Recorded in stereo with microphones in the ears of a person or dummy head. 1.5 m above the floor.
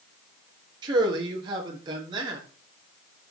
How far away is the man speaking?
About 2 m.